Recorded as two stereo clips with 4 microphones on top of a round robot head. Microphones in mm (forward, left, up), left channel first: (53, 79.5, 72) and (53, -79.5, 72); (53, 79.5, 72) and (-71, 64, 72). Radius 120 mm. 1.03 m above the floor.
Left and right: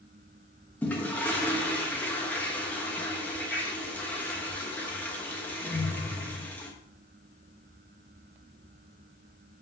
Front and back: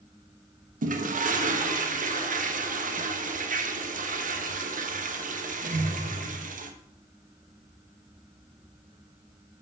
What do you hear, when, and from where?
0.8 s a toilet flushing: 170° left, 1.0 m